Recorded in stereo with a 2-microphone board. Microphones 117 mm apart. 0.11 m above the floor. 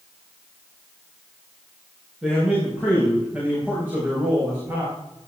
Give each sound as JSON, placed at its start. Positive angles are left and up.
{"t": 2.2, "sound": "a man speaking", "side_deg": -5, "distance_m": 9.0}